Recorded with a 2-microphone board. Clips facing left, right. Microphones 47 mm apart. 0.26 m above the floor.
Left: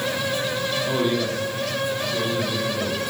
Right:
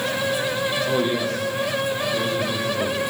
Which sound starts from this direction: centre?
A man speaking, at 0.9 s.